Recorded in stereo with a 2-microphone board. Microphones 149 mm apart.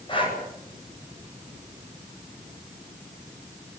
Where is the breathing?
35° left (ahead or behind), 9 m.